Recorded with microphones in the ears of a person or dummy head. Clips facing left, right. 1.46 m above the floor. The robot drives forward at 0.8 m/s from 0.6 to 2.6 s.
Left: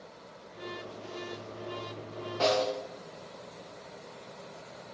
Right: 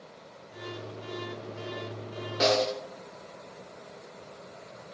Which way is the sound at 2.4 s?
25° right (ahead or behind).